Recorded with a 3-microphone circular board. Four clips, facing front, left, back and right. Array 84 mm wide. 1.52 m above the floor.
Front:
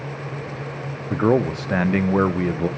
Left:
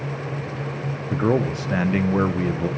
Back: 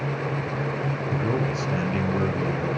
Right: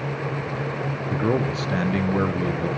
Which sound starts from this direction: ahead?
A man speaking, at 1.1 s.